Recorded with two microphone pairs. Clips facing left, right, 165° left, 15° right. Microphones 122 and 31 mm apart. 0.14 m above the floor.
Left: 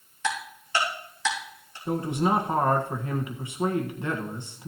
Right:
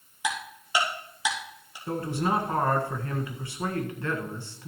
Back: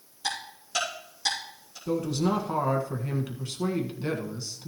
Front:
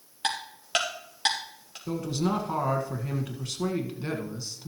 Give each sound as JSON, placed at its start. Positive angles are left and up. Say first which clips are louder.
{"t": 0.2, "sound": "ticking", "louder": "left 1 dB, front 2 dB", "azimuth_deg": -15, "distance_m": 3.5}
{"t": 1.9, "sound": "a man speaking", "louder": "left 3 dB, back 2 dB", "azimuth_deg": 70, "distance_m": 1.5}